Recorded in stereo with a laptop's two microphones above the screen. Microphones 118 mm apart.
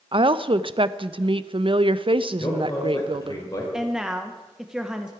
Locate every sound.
0.1 s a woman speaking: 50° right (ahead or behind), 0.5 m
2.4 s a man speaking: 35° left (ahead or behind), 5 m
3.7 s a woman speaking: 5° right (ahead or behind), 0.7 m